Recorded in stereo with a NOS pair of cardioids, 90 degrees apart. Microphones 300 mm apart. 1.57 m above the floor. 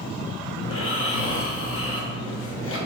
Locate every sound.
0.6 s snoring: 50° left, 0.8 m